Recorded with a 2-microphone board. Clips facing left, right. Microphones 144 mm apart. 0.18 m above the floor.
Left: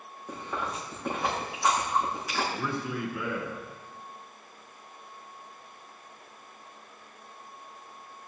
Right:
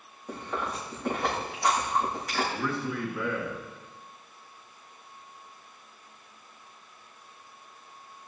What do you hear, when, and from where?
0.3 s chewing: 5° left (ahead or behind), 5.5 m
2.5 s a man speaking: 10° left (ahead or behind), 2.5 m